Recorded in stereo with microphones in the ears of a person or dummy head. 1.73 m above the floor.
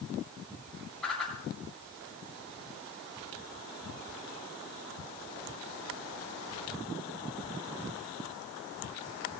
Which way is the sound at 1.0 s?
Centre (ahead or behind).